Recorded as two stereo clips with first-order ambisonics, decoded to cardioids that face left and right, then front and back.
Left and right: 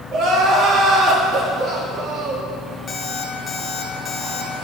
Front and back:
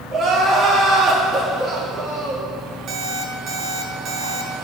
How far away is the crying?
About 1.3 m.